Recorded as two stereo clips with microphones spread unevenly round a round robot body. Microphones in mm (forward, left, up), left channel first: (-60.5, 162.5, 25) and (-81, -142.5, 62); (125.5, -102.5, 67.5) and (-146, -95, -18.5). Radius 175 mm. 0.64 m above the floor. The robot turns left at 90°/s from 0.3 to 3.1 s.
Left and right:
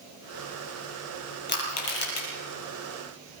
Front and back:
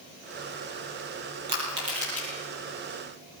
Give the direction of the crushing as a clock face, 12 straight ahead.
7 o'clock.